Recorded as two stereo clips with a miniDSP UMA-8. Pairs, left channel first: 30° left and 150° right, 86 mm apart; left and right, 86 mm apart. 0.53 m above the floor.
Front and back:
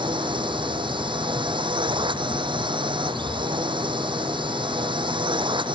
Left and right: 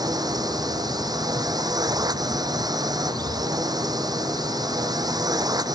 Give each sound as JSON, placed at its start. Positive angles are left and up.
{"t": 0.0, "sound": "a drone", "azimuth_deg": -130}